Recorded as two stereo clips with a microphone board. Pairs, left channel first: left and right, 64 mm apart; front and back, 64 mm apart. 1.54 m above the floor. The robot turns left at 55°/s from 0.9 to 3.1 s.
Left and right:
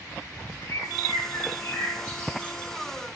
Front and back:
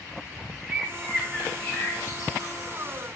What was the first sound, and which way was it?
A bird, 105° left.